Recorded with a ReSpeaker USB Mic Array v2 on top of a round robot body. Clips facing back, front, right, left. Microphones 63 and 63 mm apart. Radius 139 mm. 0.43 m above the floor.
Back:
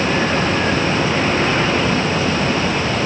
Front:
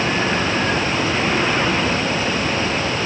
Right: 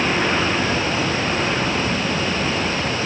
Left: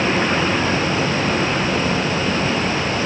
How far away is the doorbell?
I don't hear a doorbell.